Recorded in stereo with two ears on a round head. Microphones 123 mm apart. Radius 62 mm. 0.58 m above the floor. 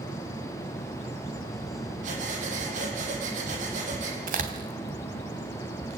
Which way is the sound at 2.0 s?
60° right (ahead or behind).